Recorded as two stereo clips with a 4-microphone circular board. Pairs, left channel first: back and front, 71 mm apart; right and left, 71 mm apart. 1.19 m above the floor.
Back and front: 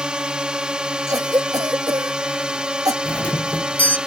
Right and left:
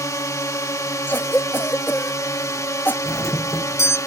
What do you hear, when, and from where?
0.0 s a drone: 75° right
1.1 s a cough: 30° right
3.0 s a doorbell: 120° right